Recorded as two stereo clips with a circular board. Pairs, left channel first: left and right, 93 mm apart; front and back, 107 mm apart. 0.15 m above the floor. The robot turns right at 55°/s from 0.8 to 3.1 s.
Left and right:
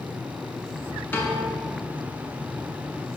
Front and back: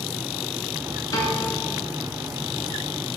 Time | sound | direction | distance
1.1 | a piano | 30° left | 0.6 m